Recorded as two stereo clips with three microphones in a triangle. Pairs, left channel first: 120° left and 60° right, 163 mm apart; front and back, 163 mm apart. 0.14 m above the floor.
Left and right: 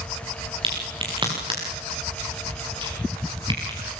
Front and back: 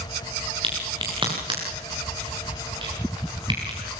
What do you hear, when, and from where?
0.6 s a crack: 120° right, 8 m